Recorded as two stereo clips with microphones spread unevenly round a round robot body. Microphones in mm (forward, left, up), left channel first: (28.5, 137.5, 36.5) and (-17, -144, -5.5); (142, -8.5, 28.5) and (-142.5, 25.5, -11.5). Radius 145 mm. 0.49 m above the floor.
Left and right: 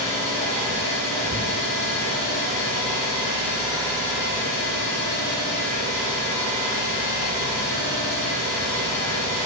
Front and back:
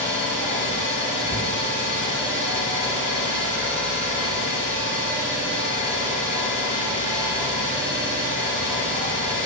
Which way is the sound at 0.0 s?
85° left.